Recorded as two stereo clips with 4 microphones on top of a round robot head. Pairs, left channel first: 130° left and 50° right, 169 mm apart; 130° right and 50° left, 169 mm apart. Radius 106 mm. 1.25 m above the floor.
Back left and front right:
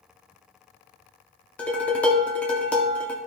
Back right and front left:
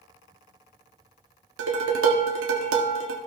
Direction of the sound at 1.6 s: 45° left.